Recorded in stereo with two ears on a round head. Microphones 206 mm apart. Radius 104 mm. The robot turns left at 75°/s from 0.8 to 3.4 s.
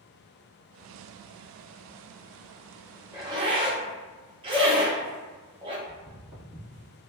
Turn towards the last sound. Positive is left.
turn(degrees=-25)  # may be behind; listen again after turning